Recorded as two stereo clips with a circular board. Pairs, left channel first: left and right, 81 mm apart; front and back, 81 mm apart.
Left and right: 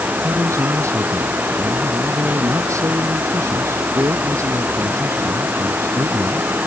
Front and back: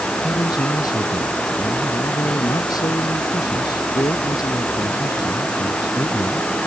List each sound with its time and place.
0.2 s a man speaking: 35° right